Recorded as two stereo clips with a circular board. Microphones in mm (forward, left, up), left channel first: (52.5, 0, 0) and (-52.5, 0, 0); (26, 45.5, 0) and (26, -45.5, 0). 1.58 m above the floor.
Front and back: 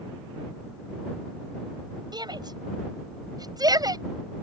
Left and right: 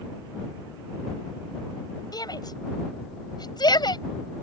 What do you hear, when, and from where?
2.1 s a shout: 135° left; by 4.0 s 125° left